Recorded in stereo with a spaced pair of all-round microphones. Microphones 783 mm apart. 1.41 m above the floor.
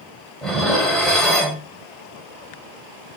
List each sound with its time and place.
0.4 s dishes clattering: centre (ahead or behind), 4.5 m